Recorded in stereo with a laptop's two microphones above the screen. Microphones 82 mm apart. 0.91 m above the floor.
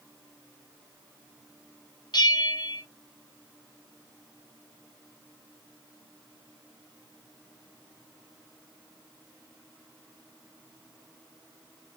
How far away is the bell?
About 6 m.